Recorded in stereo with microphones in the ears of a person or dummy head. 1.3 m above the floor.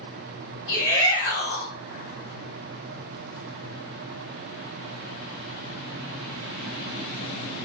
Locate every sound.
0.7 s a shout: 60° left (ahead or behind), 1.7 m